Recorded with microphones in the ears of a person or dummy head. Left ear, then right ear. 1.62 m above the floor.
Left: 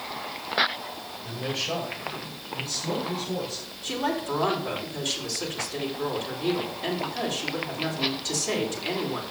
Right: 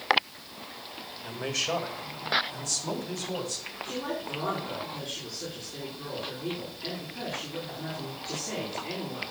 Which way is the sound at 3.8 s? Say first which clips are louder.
Left 7 dB; 45° left (ahead or behind).